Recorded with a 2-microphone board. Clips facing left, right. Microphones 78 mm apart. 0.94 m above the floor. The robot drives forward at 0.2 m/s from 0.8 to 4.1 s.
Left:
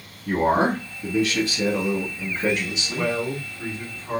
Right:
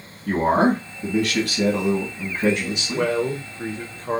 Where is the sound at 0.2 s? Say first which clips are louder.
Right 2 dB; 60° right (ahead or behind), 1.5 m.